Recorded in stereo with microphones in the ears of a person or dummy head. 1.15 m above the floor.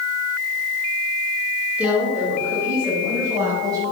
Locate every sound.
1.8 s a woman speaking: 10° right (ahead or behind), 4 m; by 3.9 s 25° right (ahead or behind), 6.5 m